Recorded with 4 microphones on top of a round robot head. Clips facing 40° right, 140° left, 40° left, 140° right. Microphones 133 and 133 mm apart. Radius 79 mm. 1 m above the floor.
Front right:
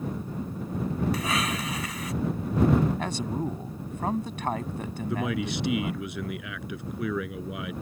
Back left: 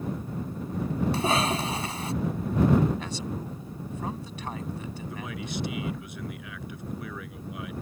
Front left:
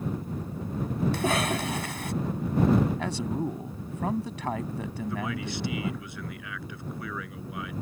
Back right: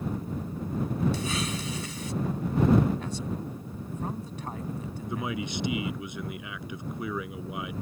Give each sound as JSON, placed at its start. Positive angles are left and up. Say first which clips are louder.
{"t": 1.1, "sound": "a cough", "louder": "back left 3 dB, front left 5 dB", "azimuth_deg": 80}
{"t": 3.0, "sound": "a man speaking", "louder": "front right 5 dB, front left 4 dB", "azimuth_deg": 5}
{"t": 5.1, "sound": "a man speaking", "louder": "front right 9 dB, back right 2 dB", "azimuth_deg": -70}